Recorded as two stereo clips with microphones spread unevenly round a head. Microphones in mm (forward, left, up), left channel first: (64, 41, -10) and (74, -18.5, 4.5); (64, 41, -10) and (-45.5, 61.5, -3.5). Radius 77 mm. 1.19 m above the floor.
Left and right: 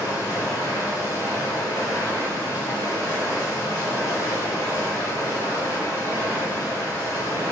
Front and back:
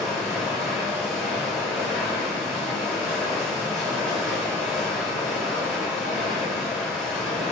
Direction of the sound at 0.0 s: 75° left.